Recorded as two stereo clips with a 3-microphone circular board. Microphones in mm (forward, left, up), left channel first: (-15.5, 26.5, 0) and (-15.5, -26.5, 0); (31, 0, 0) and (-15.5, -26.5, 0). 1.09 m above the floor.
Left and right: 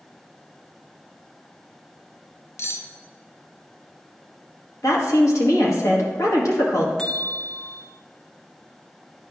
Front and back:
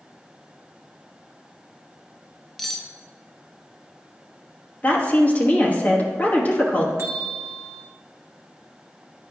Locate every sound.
2.6 s cutlery clinking: 115° left, 0.6 m
4.8 s a woman speaking: 90° left, 1.3 m
7.0 s a bell: 170° left, 0.9 m